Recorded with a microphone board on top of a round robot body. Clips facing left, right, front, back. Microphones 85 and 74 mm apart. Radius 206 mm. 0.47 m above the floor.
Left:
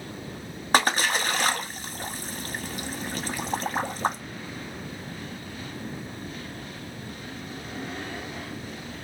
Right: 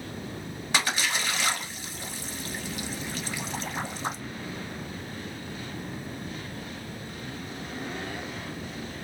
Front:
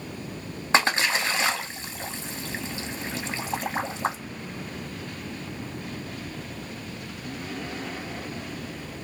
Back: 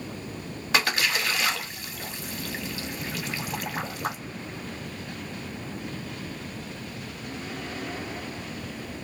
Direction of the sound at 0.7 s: 55° left.